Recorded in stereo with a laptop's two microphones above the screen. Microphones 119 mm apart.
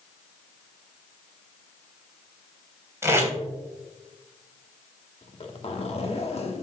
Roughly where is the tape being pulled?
Right.